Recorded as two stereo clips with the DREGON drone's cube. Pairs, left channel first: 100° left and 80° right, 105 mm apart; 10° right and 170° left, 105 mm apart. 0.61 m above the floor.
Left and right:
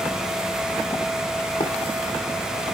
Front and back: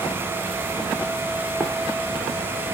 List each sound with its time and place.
1.6 s running footsteps: 90° left, 3.5 m